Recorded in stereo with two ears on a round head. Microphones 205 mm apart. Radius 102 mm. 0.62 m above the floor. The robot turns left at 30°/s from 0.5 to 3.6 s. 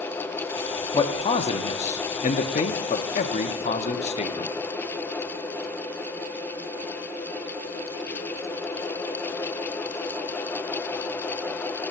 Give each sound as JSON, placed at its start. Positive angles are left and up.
{"t": 0.9, "sound": "a man speaking", "azimuth_deg": 145, "distance_m": 0.8}